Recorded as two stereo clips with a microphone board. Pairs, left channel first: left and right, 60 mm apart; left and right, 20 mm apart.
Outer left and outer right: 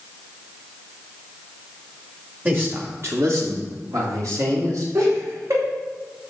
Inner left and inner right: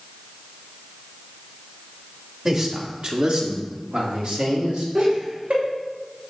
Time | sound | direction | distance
2.5 | a man speaking | 30° right (ahead or behind) | 1.8 m
5.0 | laughter | 70° right (ahead or behind) | 3 m